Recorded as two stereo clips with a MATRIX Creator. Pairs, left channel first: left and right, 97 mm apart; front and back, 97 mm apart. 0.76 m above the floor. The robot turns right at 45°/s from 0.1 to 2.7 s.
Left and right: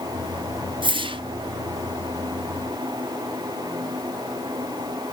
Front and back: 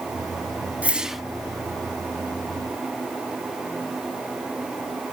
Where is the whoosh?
105° right, 1.1 m; by 1.2 s 90° right, 1.1 m.